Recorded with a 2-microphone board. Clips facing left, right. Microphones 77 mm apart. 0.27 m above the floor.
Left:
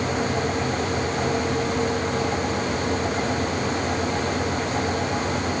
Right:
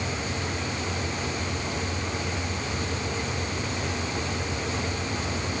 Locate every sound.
Only background noise.